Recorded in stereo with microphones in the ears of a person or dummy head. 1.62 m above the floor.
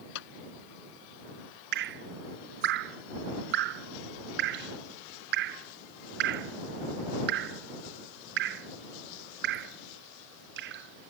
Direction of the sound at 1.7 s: 60° right (ahead or behind).